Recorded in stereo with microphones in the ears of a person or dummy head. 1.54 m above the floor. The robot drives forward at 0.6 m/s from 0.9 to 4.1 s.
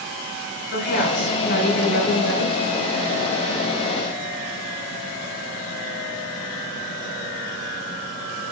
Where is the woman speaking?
65° left (ahead or behind), 6 m; by 2.5 s 55° left (ahead or behind), 6.5 m.